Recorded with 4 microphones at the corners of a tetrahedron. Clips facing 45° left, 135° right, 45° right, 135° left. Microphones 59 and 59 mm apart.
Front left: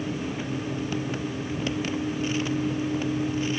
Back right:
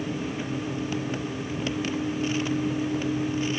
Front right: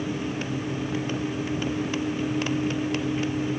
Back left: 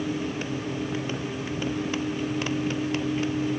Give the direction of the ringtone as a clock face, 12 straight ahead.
I don't hear a ringtone.